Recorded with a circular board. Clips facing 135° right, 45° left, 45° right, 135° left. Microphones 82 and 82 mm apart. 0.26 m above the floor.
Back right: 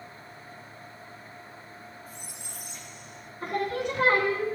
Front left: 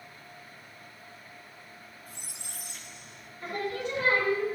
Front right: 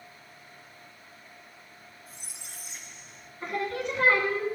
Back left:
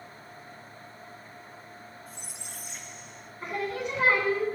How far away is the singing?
About 1.8 m.